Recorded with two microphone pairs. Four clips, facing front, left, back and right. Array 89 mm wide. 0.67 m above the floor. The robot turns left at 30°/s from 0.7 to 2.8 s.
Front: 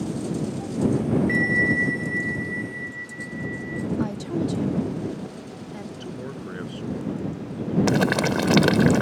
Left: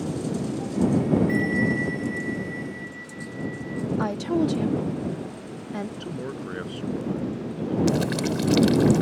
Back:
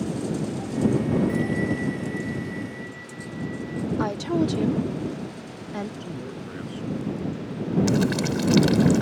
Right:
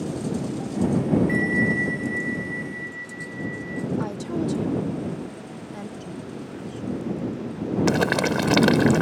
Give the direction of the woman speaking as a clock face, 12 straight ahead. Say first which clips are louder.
Left 3 dB, back 5 dB; 7 o'clock.